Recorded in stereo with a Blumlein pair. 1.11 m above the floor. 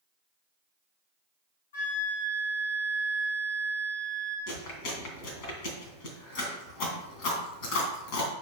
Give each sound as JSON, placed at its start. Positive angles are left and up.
{"t": 1.7, "sound": "a flute", "azimuth_deg": 60, "distance_m": 2.0}
{"t": 4.5, "sound": "chewing", "azimuth_deg": 40, "distance_m": 2.5}